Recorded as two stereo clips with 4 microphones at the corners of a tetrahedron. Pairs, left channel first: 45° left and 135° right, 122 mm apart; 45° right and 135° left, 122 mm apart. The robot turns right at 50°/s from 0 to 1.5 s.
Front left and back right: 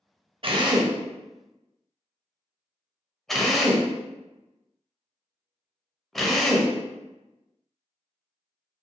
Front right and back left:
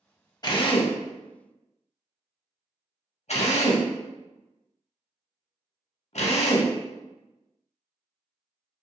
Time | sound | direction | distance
0.4 | a drill | 95° right | 0.5 m